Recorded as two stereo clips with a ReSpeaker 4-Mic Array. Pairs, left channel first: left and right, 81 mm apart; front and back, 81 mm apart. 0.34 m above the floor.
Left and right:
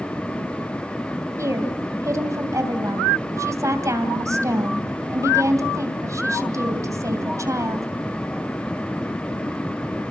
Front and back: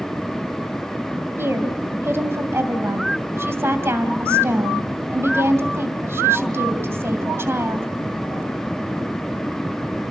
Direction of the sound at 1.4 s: 130° right.